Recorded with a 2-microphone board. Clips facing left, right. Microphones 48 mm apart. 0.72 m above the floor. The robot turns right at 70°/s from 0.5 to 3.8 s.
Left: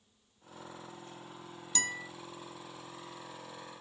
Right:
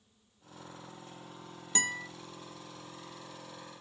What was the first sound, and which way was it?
A guitar, 25° right (ahead or behind).